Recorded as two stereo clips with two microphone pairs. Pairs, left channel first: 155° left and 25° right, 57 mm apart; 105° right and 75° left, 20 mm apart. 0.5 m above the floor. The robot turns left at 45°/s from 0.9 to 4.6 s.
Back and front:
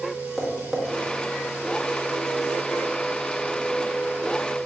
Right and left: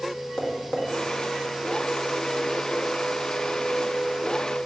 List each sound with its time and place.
0.4 s tapping: 115° right, 0.6 m